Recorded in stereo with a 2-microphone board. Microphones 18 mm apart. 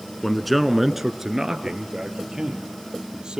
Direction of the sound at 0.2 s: 10° left (ahead or behind).